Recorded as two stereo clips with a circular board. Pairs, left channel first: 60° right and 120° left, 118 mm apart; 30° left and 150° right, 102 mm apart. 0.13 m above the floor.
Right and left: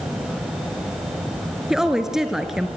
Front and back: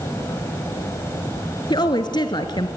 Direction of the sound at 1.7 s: 35° left.